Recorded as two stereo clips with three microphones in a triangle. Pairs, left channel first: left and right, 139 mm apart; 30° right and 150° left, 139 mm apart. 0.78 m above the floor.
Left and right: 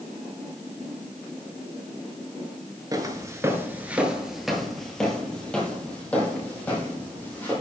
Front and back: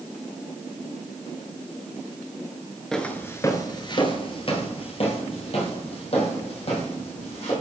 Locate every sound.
2.9 s footsteps: 110° right, 0.8 m; by 7.5 s 10° left, 3 m